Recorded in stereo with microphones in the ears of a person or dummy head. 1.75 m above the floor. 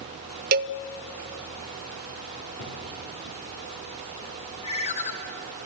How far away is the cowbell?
About 0.6 m.